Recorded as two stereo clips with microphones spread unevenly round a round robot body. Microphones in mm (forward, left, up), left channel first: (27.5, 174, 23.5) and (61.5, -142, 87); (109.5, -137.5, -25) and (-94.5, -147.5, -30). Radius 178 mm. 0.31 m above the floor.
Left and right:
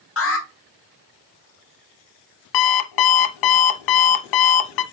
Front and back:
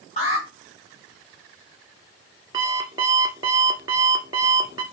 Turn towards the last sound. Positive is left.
turn(degrees=105)